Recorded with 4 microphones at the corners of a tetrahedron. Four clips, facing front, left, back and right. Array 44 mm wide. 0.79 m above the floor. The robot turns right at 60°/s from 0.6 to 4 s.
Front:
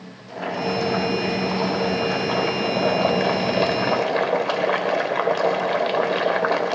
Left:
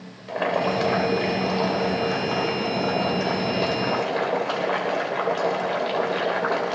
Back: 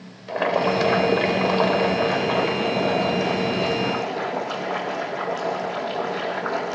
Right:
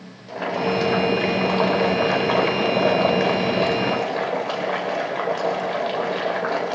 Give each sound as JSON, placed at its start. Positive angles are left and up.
{"t": 0.3, "sound": "boiling", "azimuth_deg": 155, "distance_m": 3.0}